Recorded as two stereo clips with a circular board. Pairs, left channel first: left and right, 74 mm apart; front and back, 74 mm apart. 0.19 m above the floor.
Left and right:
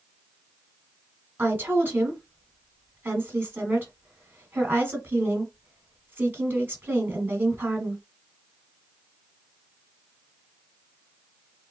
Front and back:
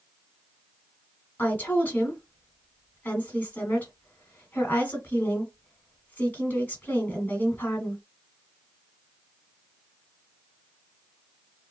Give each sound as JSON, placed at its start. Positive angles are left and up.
{"t": 1.4, "sound": "a woman speaking", "azimuth_deg": -50, "distance_m": 1.4}